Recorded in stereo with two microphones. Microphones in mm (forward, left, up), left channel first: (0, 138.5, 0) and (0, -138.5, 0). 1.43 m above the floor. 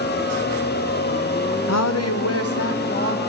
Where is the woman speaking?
70° left (ahead or behind), 0.5 m; by 3.2 s 50° left (ahead or behind), 1.3 m.